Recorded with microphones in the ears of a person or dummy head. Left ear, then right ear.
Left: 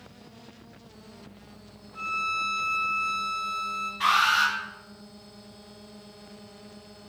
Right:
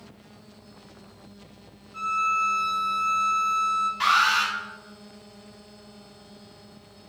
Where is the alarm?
50° right (ahead or behind), 1.3 m.